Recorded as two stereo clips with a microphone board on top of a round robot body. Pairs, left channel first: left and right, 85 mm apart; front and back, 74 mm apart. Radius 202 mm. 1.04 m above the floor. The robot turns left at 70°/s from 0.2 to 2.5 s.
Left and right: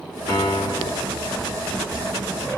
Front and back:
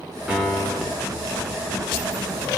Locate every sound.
0.3 s a piano: 105° left, 2.0 m; by 1.1 s 50° left, 2.0 m